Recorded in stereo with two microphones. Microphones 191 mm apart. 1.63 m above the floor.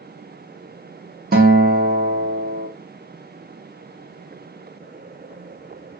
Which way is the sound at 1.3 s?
55° right (ahead or behind).